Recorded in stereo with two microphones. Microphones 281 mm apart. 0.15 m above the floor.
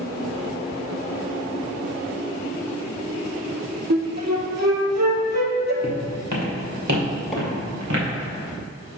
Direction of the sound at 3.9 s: 75° right (ahead or behind).